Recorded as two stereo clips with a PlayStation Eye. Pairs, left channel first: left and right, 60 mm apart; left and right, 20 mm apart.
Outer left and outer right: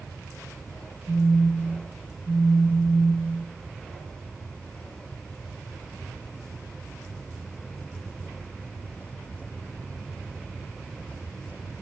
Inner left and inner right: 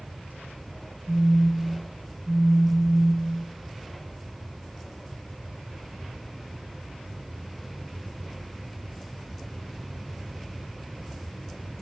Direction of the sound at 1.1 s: 10° right (ahead or behind).